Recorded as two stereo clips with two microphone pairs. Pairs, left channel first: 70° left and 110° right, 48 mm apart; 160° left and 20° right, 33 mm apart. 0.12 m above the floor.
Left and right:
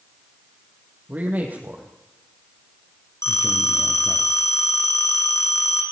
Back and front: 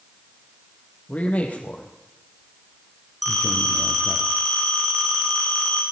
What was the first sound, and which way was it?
A man speaking, 160° right.